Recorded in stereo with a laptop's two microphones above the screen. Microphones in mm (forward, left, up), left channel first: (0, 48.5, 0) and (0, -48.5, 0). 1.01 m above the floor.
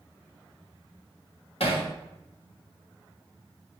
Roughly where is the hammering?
Left.